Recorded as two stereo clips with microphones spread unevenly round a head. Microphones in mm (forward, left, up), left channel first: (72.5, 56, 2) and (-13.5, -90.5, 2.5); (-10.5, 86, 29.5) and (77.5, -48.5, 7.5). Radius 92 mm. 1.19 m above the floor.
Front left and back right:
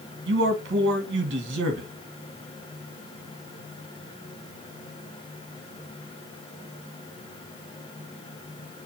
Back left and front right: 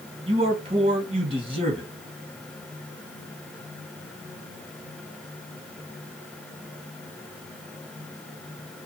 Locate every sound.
0.3 s a man speaking: 115° right, 1.8 m